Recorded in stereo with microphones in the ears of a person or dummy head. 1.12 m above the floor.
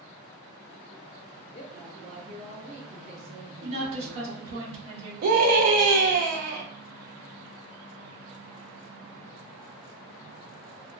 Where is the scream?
50° right (ahead or behind), 0.5 m.